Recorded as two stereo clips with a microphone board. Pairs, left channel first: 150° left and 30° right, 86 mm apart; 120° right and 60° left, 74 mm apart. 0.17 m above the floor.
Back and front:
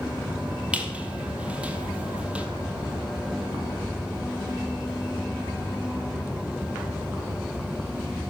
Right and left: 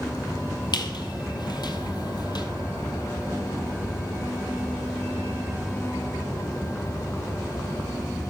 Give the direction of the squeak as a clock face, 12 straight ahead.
4 o'clock.